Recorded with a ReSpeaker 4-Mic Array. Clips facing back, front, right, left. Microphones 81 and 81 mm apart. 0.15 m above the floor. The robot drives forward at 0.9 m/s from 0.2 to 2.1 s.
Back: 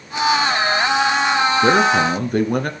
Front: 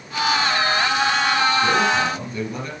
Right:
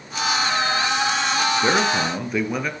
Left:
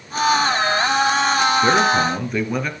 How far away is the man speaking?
About 1.8 m.